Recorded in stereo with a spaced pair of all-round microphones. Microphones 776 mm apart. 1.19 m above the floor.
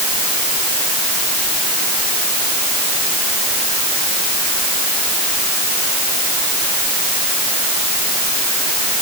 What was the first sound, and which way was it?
Only background noise.